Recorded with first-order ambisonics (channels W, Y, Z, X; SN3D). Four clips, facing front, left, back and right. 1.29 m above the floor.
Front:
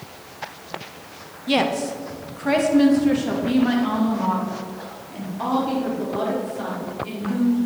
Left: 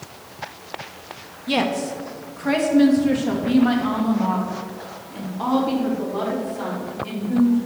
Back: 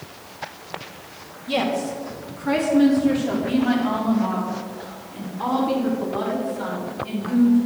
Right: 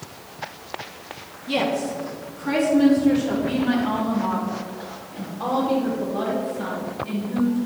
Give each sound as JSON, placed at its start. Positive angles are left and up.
{"t": 1.5, "sound": "a woman speaking", "azimuth_deg": 30, "distance_m": 1.1}